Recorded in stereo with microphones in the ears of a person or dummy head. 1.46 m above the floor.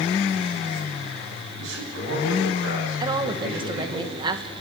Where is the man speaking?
85° right, 9 m; by 4.0 s 80° right, 11 m.